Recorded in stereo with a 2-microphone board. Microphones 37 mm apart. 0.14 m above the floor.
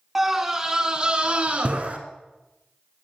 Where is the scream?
10° right (ahead or behind), 1.7 m; by 2.0 s 40° right (ahead or behind), 2 m.